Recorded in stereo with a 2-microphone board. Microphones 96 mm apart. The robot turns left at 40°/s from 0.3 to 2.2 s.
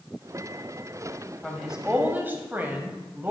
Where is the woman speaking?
Straight ahead, 1.4 m; by 3.3 s 30° right, 1.4 m.